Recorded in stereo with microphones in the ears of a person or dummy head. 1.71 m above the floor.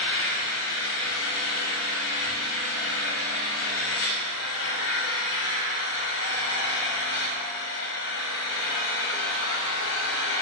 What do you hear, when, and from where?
0.0 s an engine running: 75° left (ahead or behind), 6.5 m